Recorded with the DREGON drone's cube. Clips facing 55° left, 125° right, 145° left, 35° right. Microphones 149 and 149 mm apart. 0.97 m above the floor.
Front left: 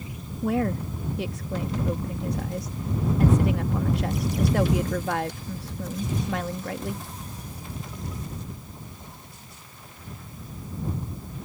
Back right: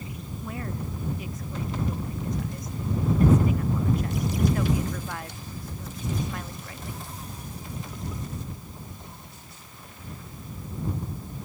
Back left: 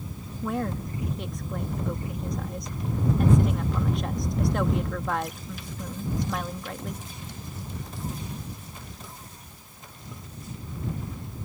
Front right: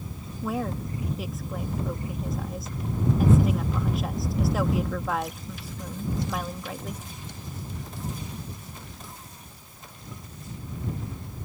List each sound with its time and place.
0.4 s a woman speaking: 50° left